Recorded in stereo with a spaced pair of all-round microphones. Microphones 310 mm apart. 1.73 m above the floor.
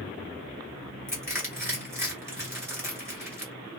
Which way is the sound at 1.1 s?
10° right (ahead or behind).